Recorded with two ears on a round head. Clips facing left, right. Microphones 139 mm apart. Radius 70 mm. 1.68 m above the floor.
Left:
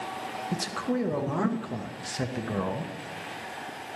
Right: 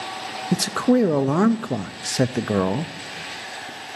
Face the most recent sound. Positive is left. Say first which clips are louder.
# right 12 dB
turn(degrees=-65)  # may be behind; listen again after turning